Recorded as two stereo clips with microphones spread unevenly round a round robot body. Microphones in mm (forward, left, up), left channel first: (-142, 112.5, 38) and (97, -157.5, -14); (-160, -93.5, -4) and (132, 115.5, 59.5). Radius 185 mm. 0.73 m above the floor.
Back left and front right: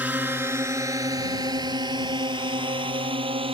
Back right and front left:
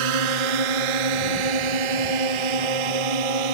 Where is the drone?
35° left; by 3.5 s 30° left.